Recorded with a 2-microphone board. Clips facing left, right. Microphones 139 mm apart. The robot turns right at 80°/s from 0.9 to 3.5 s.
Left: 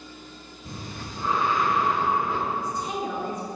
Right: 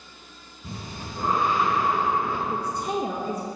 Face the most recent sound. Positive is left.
turn(degrees=0)